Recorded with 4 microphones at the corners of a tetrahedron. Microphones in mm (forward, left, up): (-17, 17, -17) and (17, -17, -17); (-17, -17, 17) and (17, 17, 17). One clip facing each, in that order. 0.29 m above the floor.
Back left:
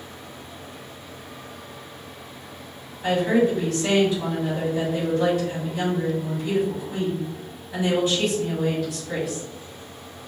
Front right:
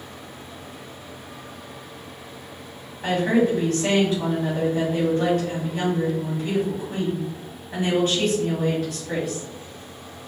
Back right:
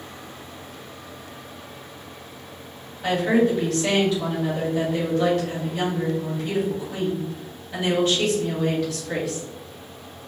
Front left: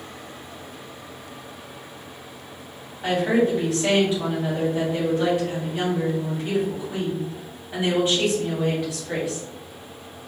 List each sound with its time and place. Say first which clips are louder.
3.0 s a woman speaking: even, back right 1 dB; 20° right, 1.9 m